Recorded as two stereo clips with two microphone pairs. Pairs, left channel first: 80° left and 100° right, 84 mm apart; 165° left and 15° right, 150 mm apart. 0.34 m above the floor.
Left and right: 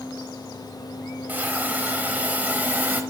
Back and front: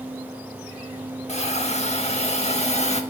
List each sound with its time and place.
1.3 s a hiss: 165° right, 0.8 m